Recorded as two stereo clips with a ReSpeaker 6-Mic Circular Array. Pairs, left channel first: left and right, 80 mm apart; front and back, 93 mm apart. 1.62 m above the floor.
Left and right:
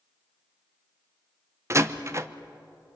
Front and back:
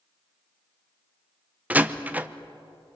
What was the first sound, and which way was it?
A door slam, 115° right.